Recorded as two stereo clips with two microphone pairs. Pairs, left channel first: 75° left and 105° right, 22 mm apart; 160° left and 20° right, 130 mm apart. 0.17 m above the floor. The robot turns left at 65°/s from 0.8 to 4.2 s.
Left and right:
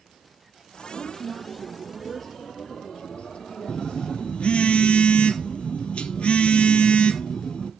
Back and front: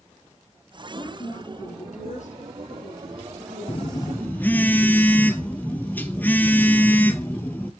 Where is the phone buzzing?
120° left, 1.0 m; by 7.7 s 85° left, 1.0 m.